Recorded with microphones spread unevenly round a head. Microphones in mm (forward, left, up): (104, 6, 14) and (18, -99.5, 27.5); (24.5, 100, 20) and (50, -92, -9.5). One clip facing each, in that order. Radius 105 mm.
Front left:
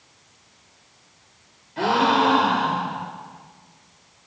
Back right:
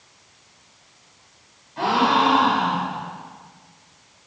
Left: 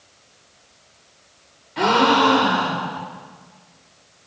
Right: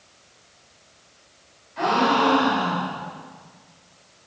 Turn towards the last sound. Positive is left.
turn(degrees=110)